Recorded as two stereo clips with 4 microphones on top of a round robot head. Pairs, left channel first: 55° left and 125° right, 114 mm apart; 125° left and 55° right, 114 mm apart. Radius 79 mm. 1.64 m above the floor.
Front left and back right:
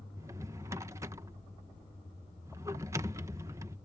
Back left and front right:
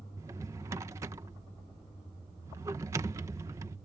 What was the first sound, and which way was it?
A drawer, 90° right.